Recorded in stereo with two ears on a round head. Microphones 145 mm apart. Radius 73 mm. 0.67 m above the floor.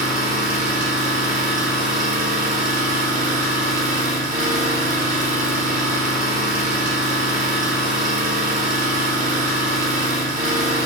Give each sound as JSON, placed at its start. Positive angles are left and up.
{"t": 0.0, "sound": "an engine running", "side_deg": -45, "distance_m": 1.2}